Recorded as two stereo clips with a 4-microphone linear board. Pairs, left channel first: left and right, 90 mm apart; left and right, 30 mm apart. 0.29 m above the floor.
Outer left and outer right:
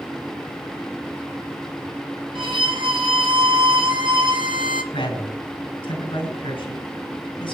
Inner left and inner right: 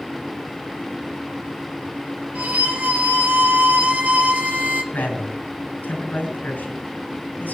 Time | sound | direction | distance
2.4 | a violin | 65° right (ahead or behind) | 1.5 m
4.9 | a man speaking | 75° left (ahead or behind) | 5 m